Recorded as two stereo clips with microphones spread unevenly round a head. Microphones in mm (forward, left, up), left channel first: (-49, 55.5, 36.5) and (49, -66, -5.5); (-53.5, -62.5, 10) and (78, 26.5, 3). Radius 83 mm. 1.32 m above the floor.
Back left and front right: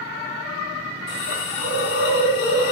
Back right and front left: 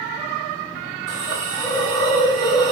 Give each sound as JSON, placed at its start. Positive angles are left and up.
{"t": 1.1, "sound": "a hiss", "azimuth_deg": 125, "distance_m": 2.0}